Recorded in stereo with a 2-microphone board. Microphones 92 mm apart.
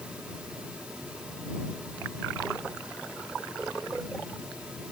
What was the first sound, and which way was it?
Only background noise.